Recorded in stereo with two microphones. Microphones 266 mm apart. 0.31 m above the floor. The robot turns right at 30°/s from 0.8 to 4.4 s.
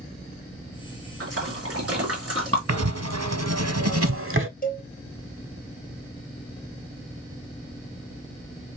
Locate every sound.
1.2 s a splash: 60° right (ahead or behind), 2 m; by 2.6 s 55° right (ahead or behind), 2 m
2.7 s writing: 100° right, 0.6 m; by 4.5 s 50° right, 0.6 m
4.6 s a cowbell: 35° left (ahead or behind), 1.3 m